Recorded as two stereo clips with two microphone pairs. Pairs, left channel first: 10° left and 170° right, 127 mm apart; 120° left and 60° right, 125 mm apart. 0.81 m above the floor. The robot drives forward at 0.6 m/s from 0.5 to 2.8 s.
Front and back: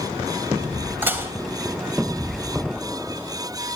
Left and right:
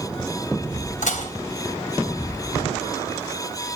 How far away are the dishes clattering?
About 3 m.